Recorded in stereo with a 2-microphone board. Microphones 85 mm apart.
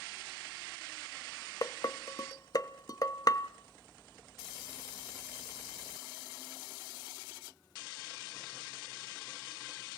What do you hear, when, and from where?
1.6 s dishes clattering: 40° left (ahead or behind), 0.9 m